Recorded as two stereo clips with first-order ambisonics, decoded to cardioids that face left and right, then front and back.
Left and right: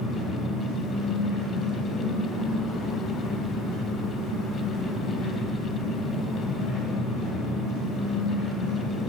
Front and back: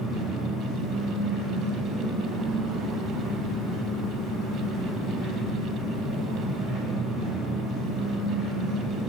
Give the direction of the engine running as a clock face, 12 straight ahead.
8 o'clock.